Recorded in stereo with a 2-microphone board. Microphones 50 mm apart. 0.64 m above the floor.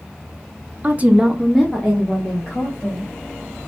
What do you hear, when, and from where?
0.8 s a woman speaking: 35° right (ahead or behind), 0.8 m; by 3.1 s 25° left (ahead or behind), 2.5 m